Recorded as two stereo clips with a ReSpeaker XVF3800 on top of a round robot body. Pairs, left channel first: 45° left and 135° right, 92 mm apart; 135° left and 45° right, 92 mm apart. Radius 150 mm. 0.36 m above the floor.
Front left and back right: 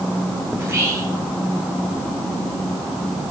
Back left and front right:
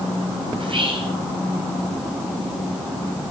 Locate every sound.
0.6 s whispering: 65° right, 3.5 m